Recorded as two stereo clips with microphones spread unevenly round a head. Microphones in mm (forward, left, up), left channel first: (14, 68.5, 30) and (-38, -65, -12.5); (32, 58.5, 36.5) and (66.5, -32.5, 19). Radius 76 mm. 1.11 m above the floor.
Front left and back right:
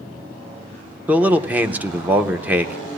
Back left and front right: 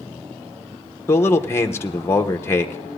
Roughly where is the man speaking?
Behind.